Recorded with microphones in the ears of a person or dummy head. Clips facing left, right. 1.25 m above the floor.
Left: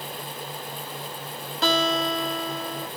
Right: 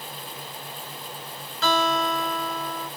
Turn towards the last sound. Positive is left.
turn(degrees=30)  # may be behind; listen again after turning